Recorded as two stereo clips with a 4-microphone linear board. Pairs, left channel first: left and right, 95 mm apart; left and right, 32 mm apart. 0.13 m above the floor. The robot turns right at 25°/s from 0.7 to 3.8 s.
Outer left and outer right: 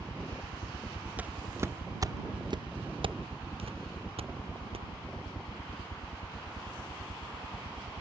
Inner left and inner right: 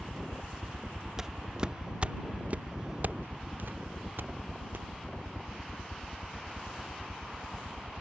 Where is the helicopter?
70° left (ahead or behind); by 8.0 s 75° left (ahead or behind).